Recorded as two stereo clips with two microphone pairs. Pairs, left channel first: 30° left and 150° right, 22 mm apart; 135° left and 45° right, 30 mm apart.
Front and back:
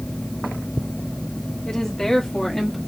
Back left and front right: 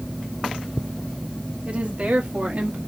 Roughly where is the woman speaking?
Ahead.